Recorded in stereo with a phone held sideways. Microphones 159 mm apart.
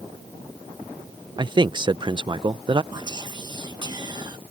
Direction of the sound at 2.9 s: 25° right (ahead or behind).